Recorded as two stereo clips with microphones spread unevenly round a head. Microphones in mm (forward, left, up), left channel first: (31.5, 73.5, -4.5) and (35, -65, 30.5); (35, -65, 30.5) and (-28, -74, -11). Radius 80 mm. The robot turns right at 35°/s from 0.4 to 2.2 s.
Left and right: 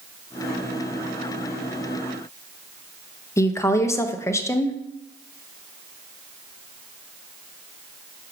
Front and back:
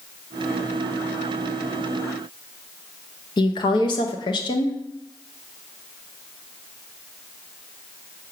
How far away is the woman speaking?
About 0.7 m.